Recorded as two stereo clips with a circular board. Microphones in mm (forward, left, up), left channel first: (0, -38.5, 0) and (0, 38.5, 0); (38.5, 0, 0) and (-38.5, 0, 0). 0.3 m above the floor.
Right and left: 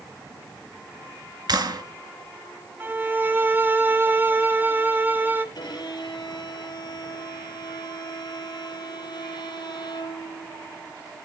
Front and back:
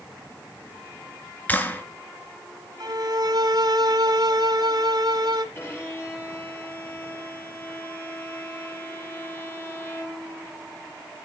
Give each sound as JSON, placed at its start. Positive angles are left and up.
{"t": 1.5, "sound": "a clap", "azimuth_deg": 70, "distance_m": 3.0}
{"t": 2.8, "sound": "a violin", "azimuth_deg": 155, "distance_m": 1.5}
{"t": 5.5, "sound": "a violin", "azimuth_deg": -60, "distance_m": 7.5}